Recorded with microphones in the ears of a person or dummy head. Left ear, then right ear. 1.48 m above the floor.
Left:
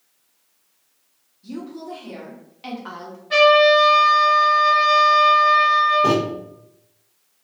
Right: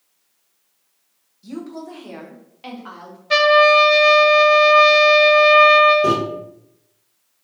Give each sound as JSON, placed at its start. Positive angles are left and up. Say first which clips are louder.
{"t": 1.4, "sound": "a woman speaking", "louder": "right 1 dB", "side_deg": -65, "distance_m": 0.8}
{"t": 3.3, "sound": "a trumpet", "louder": "right 1 dB", "side_deg": -45, "distance_m": 0.5}
{"t": 6.0, "sound": "a microwave", "louder": "right 1 dB", "side_deg": -45, "distance_m": 1.3}